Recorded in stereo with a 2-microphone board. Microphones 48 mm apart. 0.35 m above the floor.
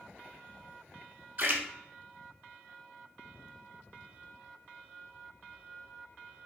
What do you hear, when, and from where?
1.4 s a splash: 50° right (ahead or behind), 0.7 m